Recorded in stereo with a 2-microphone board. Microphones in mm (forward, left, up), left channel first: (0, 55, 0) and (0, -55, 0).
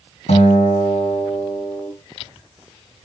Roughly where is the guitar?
Left.